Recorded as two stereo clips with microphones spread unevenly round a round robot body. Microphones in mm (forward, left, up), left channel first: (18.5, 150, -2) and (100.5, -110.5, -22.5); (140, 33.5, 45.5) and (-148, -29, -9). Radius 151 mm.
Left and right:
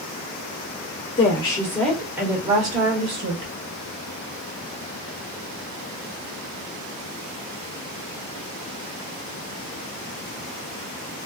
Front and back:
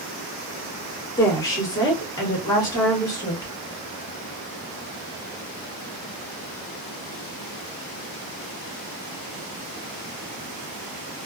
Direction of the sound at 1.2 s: 105° left.